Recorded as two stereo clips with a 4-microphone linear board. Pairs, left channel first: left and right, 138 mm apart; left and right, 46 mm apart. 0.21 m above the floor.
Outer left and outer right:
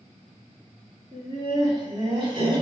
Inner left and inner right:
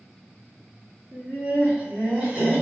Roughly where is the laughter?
Right.